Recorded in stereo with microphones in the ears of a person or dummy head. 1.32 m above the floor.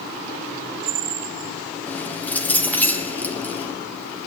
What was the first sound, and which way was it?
Keys jangling, 5° left (ahead or behind).